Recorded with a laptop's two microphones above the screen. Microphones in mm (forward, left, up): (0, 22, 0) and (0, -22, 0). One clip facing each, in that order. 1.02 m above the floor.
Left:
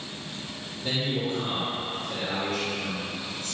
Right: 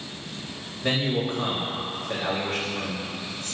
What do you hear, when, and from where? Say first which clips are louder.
0.8 s a man speaking: right 3 dB; 60° right (ahead or behind), 4.5 m